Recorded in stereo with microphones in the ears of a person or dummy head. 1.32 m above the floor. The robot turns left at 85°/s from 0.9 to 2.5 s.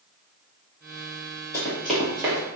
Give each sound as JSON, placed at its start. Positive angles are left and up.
{"t": 1.5, "sound": "running footsteps", "side_deg": 20, "distance_m": 1.6}